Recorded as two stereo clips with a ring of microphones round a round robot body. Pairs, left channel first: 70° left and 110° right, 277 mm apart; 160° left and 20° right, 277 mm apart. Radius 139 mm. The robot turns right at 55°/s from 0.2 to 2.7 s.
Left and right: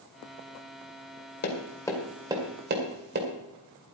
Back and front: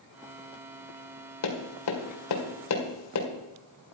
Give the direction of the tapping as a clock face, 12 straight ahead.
8 o'clock.